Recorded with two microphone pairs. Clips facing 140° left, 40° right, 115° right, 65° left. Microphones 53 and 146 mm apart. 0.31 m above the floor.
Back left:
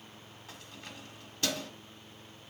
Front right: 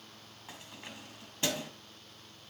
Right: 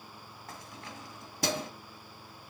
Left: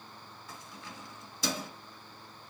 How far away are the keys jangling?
About 1.7 m.